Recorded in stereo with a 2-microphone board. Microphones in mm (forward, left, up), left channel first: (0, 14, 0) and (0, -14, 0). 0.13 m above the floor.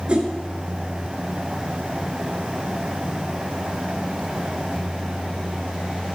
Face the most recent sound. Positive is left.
turn(degrees=-40)  # may be behind; listen again after turning